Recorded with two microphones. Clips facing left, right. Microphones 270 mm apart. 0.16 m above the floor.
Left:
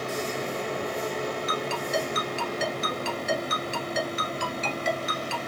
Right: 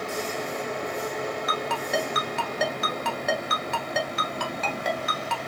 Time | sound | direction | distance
1.5 | a ringtone | 65° right (ahead or behind) | 1.0 m